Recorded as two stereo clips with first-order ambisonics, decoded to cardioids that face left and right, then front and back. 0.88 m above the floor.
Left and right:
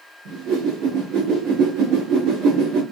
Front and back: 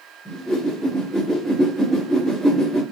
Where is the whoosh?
105° right, 1.8 m.